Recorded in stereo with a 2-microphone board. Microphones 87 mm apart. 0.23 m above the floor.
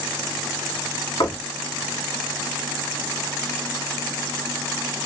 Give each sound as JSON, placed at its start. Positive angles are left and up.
{"t": 1.2, "sound": "knocking", "side_deg": 55, "distance_m": 1.6}